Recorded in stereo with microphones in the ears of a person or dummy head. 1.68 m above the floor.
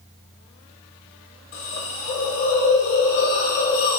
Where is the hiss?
40° left (ahead or behind), 0.6 m.